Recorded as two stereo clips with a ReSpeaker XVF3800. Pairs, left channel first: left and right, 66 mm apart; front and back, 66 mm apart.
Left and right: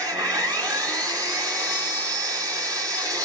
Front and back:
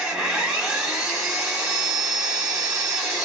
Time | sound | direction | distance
0.0 | an engine running | 105° right | 1.7 m